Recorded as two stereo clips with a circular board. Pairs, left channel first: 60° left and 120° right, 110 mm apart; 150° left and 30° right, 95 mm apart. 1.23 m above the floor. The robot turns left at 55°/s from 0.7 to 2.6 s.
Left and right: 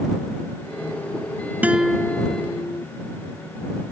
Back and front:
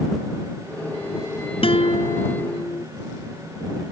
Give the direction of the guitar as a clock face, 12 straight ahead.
7 o'clock.